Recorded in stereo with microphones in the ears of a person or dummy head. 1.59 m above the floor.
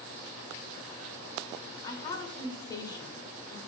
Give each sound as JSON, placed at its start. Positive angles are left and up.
{"t": 1.8, "sound": "a woman speaking", "side_deg": 10, "distance_m": 1.6}